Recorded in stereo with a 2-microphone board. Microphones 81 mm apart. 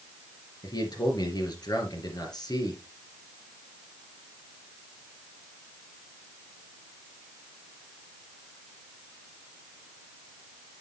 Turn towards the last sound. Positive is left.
turn(degrees=55)  # may be behind; listen again after turning